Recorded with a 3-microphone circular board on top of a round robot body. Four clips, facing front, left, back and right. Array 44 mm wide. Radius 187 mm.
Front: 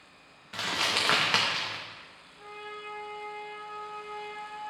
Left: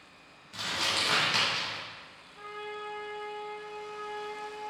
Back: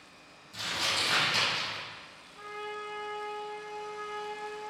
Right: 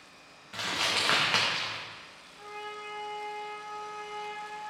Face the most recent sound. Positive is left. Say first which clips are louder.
# left 1 dB, back 3 dB
turn(degrees=130)